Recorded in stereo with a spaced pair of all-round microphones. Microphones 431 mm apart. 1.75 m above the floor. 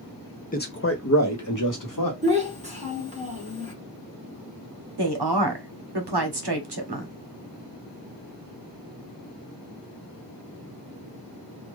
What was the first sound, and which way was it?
A man speaking, 20° left (ahead or behind).